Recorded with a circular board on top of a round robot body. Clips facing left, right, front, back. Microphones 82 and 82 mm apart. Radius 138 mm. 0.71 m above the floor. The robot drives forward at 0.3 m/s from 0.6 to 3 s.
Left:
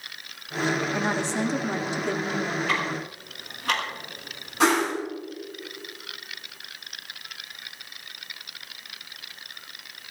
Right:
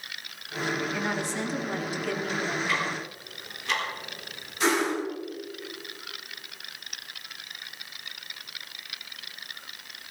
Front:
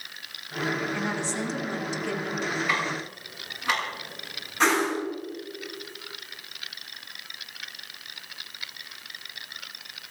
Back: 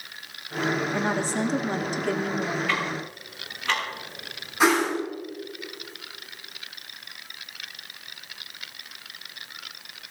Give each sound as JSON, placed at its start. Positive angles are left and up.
{"t": 0.9, "sound": "a woman speaking", "azimuth_deg": 145, "distance_m": 1.9}
{"t": 2.7, "sound": "ticking", "azimuth_deg": 75, "distance_m": 7.5}
{"t": 4.6, "sound": "a whoosh", "azimuth_deg": 100, "distance_m": 7.0}